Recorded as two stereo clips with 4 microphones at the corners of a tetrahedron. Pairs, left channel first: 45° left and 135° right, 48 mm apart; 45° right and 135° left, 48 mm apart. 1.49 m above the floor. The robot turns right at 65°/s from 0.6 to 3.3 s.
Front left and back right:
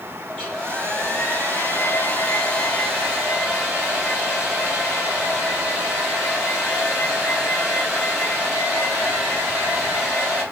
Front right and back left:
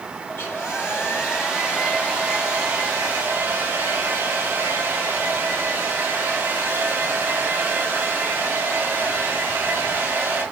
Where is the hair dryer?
25° right, 2.5 m; by 10.4 s 150° left, 2.5 m.